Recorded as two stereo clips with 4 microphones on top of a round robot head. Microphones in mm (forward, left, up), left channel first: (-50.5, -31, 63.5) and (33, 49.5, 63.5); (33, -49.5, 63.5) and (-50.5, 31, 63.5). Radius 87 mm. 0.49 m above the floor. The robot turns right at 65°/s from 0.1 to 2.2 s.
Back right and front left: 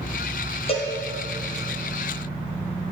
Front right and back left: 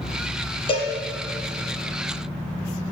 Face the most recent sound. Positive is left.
turn(degrees=5)